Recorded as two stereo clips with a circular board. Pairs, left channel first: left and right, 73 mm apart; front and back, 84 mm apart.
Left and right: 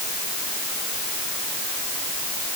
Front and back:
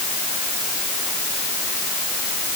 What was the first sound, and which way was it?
Only background noise.